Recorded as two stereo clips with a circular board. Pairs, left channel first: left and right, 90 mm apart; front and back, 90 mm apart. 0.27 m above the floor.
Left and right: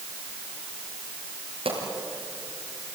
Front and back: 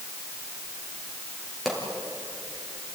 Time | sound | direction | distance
1.6 | a pop | 90° right | 5.5 m